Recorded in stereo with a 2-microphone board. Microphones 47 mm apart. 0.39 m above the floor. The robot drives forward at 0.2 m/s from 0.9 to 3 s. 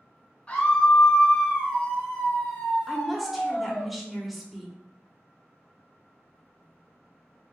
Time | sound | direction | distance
0.5 | a scream | 25° left (ahead or behind) | 1.3 m
2.9 | a woman speaking | centre (ahead or behind) | 0.8 m